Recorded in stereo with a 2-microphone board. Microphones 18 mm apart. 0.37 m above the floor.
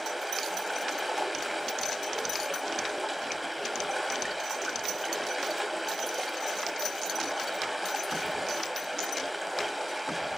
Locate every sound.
0.0 s running water: 5° right (ahead or behind), 1.5 m